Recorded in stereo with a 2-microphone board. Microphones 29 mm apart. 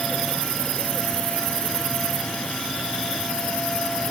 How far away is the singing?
No singing in this recording.